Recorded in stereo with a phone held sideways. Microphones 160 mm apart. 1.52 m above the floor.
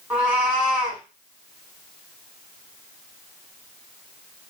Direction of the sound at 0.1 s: 10° right (ahead or behind).